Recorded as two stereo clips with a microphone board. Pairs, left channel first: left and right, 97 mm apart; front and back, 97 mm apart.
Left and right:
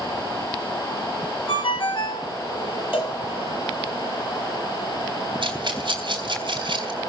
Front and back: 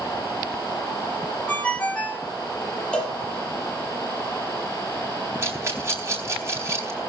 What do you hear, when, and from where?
1.5 s a ringtone: 75° left, 3 m
2.9 s a cowbell: 80° left, 6 m
5.4 s a rattle: 120° right, 4 m